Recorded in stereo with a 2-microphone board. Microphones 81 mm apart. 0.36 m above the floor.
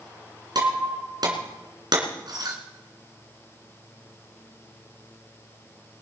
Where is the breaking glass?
55° right (ahead or behind), 3 m.